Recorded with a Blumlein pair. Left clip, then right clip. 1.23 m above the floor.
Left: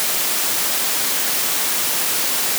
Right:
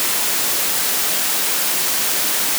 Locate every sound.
Only background noise.